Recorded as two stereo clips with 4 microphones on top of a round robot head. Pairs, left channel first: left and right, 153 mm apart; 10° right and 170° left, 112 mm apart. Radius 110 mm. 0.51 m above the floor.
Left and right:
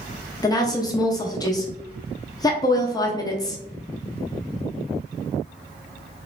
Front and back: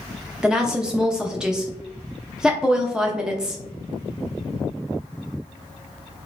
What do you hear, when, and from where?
0.4 s a woman speaking: 95° left, 0.7 m